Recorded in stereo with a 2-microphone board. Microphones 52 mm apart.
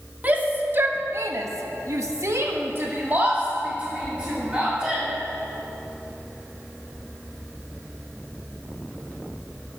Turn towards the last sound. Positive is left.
turn(degrees=-15)  # may be behind; listen again after turning